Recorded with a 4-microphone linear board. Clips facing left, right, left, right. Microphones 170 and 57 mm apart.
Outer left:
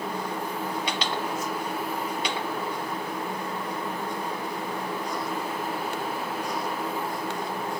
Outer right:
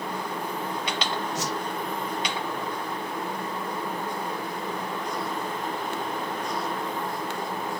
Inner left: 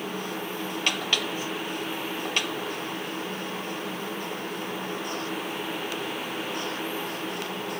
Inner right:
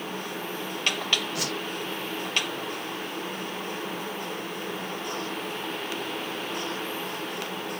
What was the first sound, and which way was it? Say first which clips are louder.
A whoosh: outer right 1 dB, even; 70° right (ahead or behind).